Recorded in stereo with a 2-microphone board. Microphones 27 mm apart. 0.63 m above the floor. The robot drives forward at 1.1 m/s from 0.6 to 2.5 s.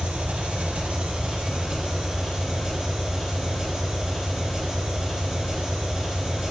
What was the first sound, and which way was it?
An engine running, 60° right (ahead or behind).